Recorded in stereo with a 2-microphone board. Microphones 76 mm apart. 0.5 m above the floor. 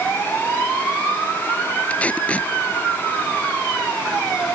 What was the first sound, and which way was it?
Tape being pulled, 15° left (ahead or behind).